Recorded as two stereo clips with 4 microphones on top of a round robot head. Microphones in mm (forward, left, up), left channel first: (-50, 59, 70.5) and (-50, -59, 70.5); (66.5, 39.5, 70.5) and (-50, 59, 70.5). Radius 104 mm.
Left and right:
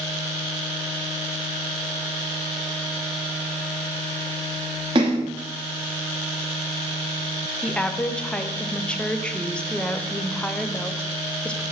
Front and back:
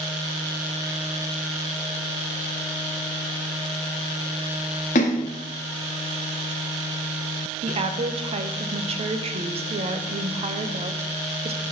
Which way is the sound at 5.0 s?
35° right.